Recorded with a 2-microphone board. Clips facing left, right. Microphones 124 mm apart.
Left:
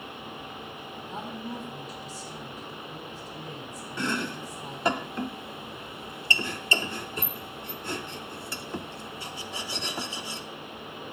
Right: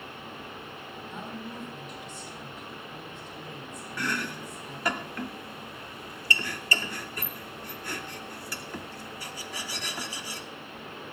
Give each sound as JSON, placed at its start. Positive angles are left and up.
{"t": 1.1, "sound": "a woman speaking", "side_deg": 35, "distance_m": 4.0}
{"t": 4.0, "sound": "chopping", "side_deg": 25, "distance_m": 0.7}